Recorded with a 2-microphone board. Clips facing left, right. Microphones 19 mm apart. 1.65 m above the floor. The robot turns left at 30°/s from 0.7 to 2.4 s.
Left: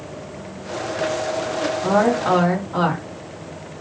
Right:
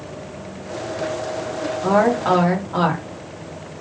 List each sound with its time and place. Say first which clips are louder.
1.8 s a woman speaking: right 2 dB; 35° right (ahead or behind), 2 m; by 3.0 s 15° right (ahead or behind), 2 m